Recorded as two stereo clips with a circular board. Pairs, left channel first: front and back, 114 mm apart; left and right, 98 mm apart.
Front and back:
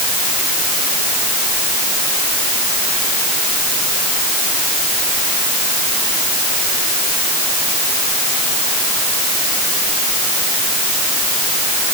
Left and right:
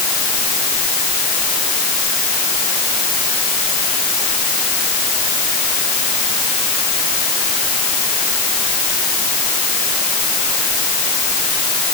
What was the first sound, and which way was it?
Only background noise.